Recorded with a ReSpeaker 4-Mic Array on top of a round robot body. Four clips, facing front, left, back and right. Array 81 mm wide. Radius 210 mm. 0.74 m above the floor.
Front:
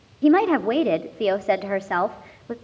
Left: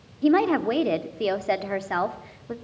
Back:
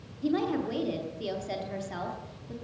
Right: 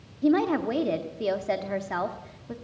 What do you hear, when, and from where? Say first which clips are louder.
0.2 s a woman speaking: left 3 dB, front 11 dB; 15° left, 0.9 m